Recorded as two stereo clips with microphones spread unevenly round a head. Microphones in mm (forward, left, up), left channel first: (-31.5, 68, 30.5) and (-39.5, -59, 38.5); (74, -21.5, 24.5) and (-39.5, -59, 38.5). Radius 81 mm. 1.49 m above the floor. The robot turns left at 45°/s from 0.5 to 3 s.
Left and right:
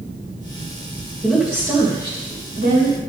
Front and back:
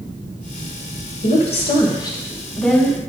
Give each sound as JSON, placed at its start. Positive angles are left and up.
{"t": 1.2, "sound": "a woman speaking", "azimuth_deg": 0, "distance_m": 2.0}